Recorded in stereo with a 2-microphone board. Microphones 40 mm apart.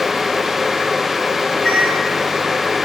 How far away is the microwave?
About 0.9 m.